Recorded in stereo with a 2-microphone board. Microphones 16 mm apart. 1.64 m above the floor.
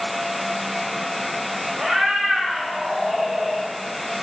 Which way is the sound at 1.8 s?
35° right (ahead or behind).